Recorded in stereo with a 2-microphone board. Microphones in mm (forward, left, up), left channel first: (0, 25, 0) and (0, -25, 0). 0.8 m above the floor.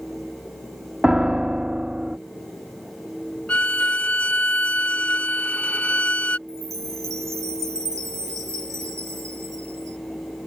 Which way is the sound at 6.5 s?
85° right.